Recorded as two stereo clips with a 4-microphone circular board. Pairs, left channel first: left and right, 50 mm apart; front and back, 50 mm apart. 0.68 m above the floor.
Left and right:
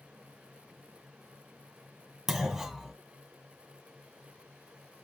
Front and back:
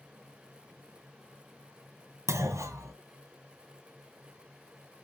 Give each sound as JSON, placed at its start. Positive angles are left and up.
{"t": 2.3, "sound": "a clunk", "azimuth_deg": 180, "distance_m": 1.7}